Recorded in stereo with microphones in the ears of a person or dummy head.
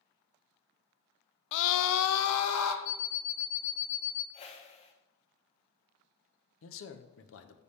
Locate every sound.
1.5 s a scream: 55° left (ahead or behind), 0.5 m; by 2.8 s 85° left, 1.0 m
2.9 s an alarm clock: 20° left (ahead or behind), 0.7 m
4.3 s a whoosh: 35° left (ahead or behind), 0.8 m
6.6 s a man speaking: 60° left (ahead or behind), 0.8 m